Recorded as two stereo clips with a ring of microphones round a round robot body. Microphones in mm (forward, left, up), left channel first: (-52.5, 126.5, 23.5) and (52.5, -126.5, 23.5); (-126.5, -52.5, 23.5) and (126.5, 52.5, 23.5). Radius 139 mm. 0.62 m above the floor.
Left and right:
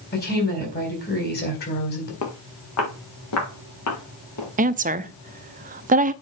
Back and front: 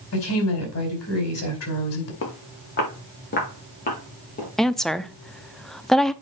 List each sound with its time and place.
0.1 s a woman speaking: 170° left, 4.5 m
2.2 s footsteps: 155° left, 3.5 m; by 4.5 s 140° left, 6 m
4.6 s a woman speaking: 70° right, 0.6 m